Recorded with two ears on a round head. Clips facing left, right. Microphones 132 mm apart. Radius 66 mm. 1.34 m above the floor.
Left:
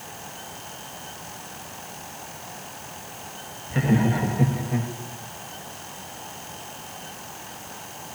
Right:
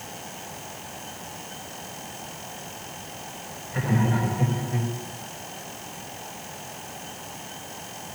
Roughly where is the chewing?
No chewing in this recording.